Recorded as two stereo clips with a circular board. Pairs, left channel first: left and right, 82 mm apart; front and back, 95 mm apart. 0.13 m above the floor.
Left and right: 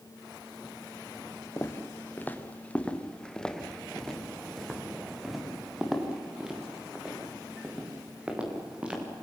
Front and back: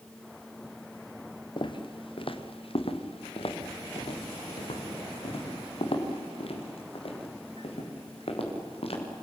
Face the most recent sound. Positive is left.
turn(degrees=-15)